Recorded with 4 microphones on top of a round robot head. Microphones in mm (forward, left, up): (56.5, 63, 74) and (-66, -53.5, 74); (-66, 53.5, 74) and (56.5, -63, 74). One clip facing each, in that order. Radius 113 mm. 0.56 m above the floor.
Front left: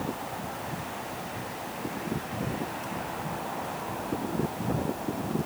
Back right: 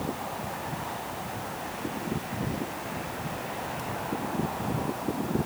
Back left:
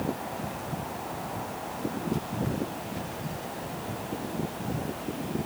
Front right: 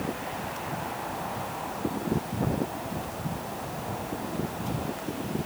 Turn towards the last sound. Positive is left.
No sound to turn to.